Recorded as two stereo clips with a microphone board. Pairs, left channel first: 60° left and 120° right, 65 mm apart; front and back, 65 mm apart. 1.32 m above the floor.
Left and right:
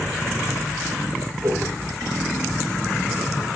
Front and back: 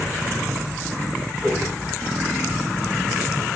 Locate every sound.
1.4 s a whoosh: 80° right, 9 m